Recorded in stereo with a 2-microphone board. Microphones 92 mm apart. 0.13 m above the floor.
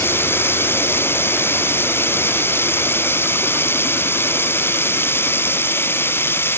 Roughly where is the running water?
Left.